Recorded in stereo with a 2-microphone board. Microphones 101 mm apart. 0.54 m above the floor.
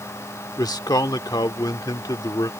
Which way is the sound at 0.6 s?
40° left (ahead or behind).